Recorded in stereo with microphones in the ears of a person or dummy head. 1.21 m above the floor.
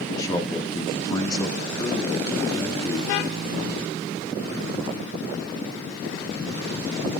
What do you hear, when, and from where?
0.2 s a man speaking: 20° left (ahead or behind), 1.7 m